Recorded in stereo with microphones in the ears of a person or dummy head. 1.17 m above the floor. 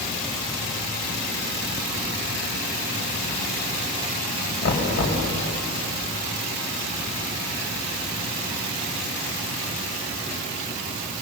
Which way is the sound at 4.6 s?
75° left (ahead or behind).